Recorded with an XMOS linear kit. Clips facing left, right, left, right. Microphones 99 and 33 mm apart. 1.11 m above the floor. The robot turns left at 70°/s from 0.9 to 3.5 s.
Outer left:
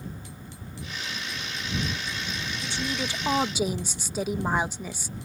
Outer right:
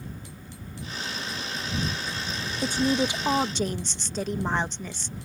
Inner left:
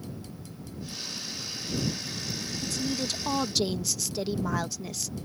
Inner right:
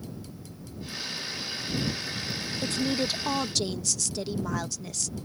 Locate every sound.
2.6 s a woman speaking: 125° right; by 5.2 s 170° left